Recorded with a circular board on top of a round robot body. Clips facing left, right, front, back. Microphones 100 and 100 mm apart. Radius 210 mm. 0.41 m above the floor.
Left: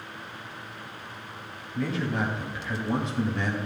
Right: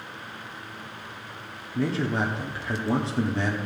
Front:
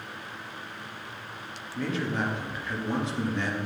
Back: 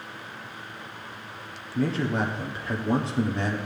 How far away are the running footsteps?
No running footsteps in this recording.